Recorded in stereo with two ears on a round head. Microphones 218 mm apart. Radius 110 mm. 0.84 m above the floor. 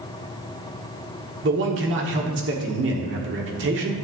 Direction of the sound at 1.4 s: 45° right (ahead or behind).